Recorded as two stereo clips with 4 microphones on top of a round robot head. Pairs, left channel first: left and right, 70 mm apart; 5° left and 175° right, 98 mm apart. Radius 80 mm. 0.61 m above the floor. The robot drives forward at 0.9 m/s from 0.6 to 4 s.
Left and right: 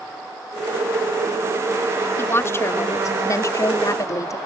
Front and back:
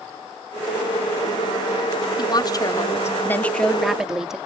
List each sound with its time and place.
2.2 s a woman speaking: 35° left; by 4.4 s 100° left